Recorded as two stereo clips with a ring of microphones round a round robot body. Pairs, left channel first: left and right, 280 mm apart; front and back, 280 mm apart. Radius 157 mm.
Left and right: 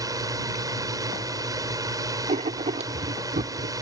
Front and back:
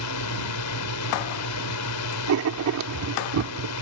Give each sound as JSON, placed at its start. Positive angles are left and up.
{"t": 0.0, "sound": "a drone", "azimuth_deg": -15}
{"t": 2.3, "sound": "writing", "azimuth_deg": -155}